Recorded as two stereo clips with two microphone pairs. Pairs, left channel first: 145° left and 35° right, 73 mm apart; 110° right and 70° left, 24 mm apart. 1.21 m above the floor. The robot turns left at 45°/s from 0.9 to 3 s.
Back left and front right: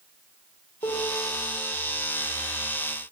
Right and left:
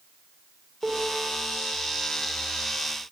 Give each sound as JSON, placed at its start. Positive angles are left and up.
{"t": 0.8, "sound": "a piano", "azimuth_deg": 155, "distance_m": 3.0}